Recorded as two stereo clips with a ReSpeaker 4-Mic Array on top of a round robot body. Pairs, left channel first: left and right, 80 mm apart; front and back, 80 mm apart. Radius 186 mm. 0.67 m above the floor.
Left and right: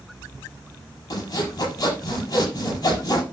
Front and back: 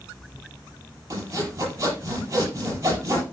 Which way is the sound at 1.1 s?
125° left.